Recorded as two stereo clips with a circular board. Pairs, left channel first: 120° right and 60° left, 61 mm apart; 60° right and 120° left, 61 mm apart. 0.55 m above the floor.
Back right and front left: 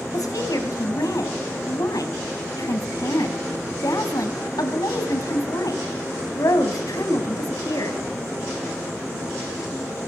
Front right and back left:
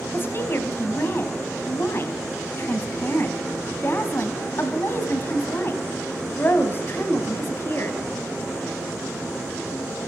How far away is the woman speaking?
About 3.5 m.